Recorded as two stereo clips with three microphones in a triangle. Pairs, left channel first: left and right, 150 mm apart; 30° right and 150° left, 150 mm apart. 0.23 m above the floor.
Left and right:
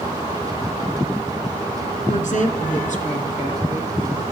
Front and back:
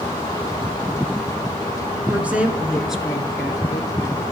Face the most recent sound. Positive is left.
turn(degrees=55)